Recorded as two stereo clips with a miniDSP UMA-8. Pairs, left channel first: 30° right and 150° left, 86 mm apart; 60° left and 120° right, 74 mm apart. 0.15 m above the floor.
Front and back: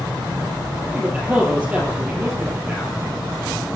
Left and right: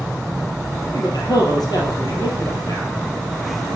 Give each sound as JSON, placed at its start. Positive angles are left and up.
{"t": 0.9, "sound": "a man speaking", "azimuth_deg": 80, "distance_m": 3.5}